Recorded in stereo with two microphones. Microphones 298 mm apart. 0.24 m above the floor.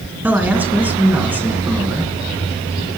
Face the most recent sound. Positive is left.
turn(degrees=-5)  # may be behind; listen again after turning